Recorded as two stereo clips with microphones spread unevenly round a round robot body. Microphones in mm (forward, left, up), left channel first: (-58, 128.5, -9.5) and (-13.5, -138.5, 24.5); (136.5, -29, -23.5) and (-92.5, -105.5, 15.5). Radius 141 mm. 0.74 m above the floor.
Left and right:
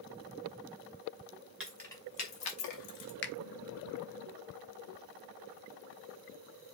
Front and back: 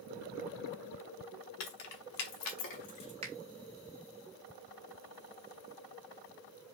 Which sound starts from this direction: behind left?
A finger snap, at 3.2 s.